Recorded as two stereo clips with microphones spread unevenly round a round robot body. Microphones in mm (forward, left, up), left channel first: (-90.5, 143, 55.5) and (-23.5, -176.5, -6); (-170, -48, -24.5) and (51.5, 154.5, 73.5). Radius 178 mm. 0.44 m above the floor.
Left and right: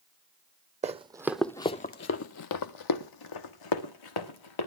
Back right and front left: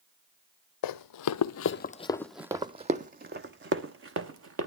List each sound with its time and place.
0.8 s running footsteps: 150° right, 0.8 m; by 4.7 s 80° left, 1.9 m